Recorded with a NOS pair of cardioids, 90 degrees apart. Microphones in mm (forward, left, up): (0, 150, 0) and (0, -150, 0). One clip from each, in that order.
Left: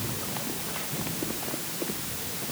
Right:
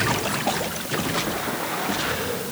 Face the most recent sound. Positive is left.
No sound to turn to.